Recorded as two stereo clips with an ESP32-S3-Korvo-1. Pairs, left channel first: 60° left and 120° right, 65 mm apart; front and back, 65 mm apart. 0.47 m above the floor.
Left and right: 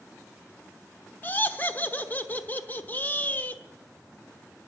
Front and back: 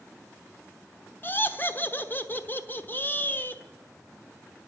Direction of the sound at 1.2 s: 25° left.